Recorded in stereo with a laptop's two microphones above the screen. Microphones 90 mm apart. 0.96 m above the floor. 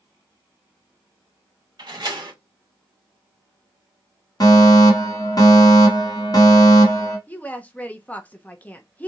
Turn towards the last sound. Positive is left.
turn(degrees=15)  # may be behind; listen again after turning